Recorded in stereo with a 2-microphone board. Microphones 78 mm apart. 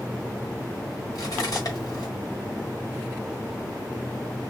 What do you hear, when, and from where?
1.1 s cutlery clinking: 55° left (ahead or behind), 1.2 m